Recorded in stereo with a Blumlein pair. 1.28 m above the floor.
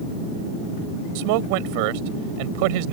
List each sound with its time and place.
1.1 s a man speaking: 45° right